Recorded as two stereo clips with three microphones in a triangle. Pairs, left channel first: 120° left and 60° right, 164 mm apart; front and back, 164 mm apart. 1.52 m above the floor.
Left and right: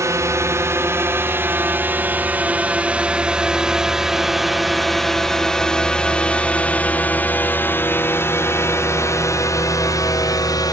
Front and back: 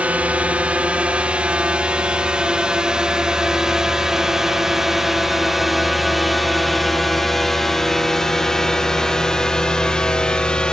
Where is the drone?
110° right; by 10.7 s 80° left.